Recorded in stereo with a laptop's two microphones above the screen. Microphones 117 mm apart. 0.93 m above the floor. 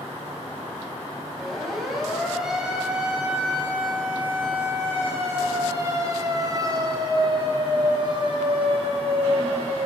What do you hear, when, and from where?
1.4 s a siren: centre (ahead or behind), 5 m; by 9.9 s 55° right (ahead or behind), 4.5 m